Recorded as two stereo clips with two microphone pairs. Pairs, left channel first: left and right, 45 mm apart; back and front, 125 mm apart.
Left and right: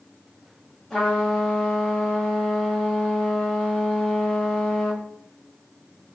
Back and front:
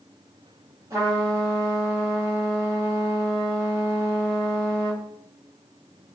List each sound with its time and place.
0.9 s a trumpet: 10° left, 1.4 m